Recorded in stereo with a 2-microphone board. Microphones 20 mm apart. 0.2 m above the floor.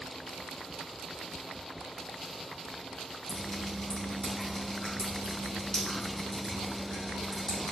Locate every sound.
3.3 s dripping: 35° left (ahead or behind), 3 m